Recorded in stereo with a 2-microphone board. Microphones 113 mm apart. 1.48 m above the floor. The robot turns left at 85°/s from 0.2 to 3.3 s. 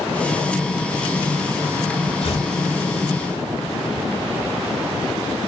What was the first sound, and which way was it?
Tearing paper, 65° left (ahead or behind).